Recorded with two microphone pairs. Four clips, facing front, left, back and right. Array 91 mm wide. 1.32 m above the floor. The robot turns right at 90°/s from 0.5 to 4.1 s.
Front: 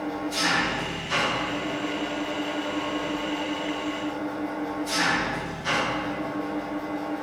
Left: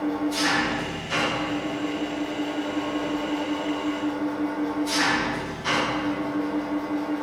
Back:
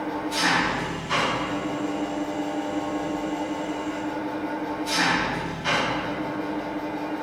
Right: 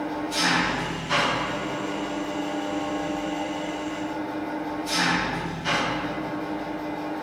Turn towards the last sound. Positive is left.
turn(degrees=175)